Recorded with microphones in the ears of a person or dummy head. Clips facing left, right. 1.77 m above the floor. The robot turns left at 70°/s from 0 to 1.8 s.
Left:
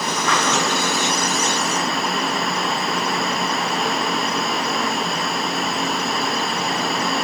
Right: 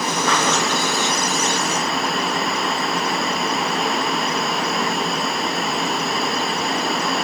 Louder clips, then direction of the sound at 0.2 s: Right 1 dB; 45° right (ahead or behind).